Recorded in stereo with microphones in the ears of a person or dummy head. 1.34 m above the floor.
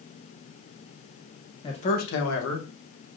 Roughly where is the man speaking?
Left.